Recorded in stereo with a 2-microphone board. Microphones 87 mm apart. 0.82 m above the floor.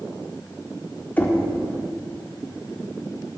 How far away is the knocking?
About 1.2 m.